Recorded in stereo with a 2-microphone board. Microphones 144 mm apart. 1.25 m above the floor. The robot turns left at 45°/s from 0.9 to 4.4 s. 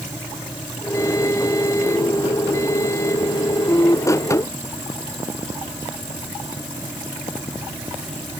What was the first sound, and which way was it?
Only background noise.